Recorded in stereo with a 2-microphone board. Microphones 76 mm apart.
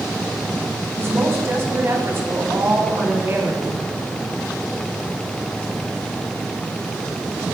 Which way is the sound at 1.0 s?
35° right (ahead or behind).